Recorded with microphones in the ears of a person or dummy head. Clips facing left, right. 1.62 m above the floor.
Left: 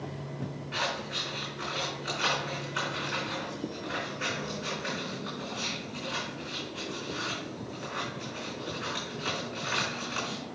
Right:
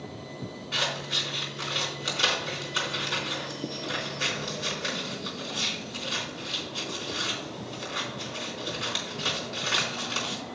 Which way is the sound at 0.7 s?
55° right (ahead or behind).